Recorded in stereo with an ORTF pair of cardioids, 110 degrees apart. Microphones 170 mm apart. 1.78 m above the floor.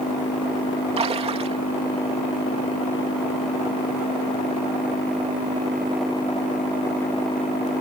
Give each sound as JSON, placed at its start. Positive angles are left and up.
{"t": 1.0, "sound": "a splash", "azimuth_deg": -35}